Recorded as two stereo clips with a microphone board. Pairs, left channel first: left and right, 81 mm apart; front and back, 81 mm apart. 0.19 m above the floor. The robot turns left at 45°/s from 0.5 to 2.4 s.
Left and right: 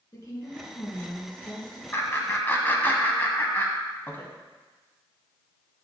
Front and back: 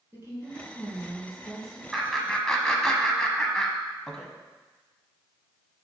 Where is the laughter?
95° left, 1.1 m; by 4.3 s 75° left, 1.1 m.